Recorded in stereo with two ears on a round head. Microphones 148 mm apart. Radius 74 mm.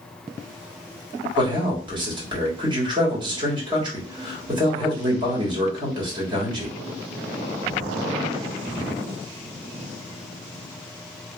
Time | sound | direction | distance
1.4 | a man speaking | 25° right (ahead or behind) | 1.2 m